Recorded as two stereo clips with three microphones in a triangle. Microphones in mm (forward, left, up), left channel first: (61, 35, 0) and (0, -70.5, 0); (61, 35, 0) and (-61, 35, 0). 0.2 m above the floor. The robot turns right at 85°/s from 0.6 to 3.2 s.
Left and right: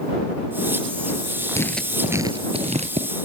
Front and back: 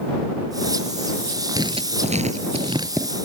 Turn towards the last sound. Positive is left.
turn(degrees=-95)